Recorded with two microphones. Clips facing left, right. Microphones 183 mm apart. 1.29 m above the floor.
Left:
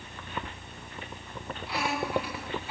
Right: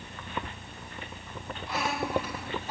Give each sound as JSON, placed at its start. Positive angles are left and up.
{"t": 1.7, "sound": "laughter", "side_deg": -45, "distance_m": 7.0}